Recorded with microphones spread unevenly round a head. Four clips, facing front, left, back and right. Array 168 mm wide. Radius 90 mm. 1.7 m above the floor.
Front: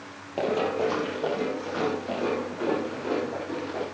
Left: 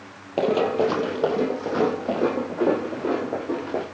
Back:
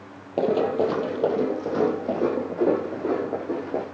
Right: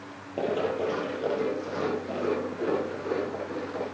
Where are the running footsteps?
125° left, 2 m.